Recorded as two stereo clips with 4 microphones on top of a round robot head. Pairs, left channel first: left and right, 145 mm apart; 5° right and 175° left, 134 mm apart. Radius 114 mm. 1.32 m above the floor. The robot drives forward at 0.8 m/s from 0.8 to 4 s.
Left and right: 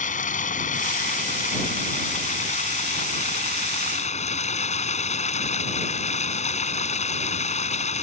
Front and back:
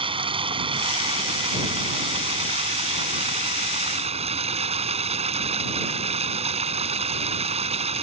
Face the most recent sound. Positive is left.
turn(degrees=130)